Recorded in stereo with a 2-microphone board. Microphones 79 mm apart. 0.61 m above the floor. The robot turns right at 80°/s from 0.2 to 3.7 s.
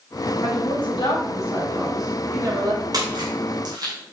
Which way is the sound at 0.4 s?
60° left.